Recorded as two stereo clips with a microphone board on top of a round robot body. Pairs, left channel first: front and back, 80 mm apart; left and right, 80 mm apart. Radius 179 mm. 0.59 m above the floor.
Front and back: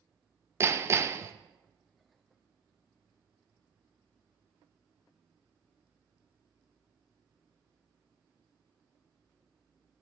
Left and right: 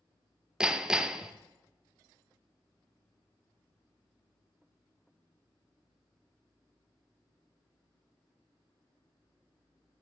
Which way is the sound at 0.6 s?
165° right.